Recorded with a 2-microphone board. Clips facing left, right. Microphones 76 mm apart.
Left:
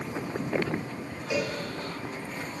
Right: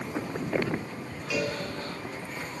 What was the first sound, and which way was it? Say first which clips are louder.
A cowbell: even; 25° left (ahead or behind).